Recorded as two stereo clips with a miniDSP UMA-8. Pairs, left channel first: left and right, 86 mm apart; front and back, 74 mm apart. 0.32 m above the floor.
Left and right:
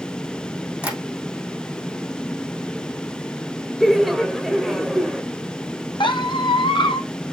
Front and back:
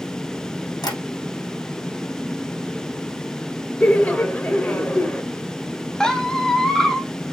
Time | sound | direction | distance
0.8 | tapping | 15° right | 3 m
3.8 | laughter | 5° left | 1.0 m
6.0 | a squeak | 80° left | 0.9 m